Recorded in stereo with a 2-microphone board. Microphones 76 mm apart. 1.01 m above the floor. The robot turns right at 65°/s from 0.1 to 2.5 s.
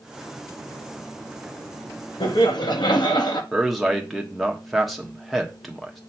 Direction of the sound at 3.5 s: Centre (ahead or behind).